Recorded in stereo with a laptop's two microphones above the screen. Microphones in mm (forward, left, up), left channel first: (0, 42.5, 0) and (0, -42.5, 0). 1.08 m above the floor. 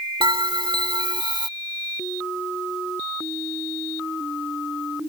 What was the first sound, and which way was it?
A bell, 65° right (ahead or behind).